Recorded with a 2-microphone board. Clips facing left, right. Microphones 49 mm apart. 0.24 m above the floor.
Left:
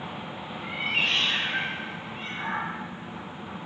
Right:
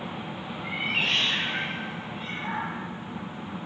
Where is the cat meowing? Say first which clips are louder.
Left 1 dB; 15° right (ahead or behind), 1.2 m; by 2.7 s 55° left (ahead or behind), 1.1 m.